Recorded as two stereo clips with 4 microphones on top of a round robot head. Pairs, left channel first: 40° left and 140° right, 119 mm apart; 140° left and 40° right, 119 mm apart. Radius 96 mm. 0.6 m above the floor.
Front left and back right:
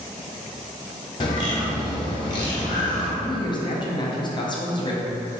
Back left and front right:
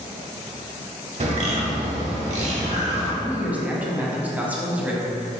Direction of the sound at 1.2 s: 10° right.